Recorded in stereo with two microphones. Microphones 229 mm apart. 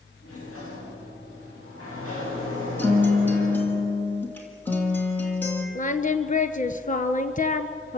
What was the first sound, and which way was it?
A sliding door, 85° left.